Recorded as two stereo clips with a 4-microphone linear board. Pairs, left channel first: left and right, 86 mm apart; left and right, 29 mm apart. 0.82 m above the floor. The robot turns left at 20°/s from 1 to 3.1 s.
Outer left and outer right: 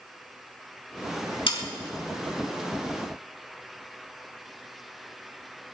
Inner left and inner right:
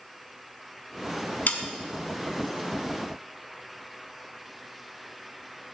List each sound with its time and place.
1.5 s sawing: 75° left (ahead or behind), 1.4 m; by 1.6 s 80° left, 1.4 m